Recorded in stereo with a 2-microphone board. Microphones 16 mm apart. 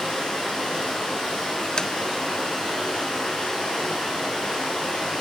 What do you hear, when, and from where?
0.0 s running water: 75° left (ahead or behind), 3.5 m
1.8 s tapping: 60° left (ahead or behind), 0.6 m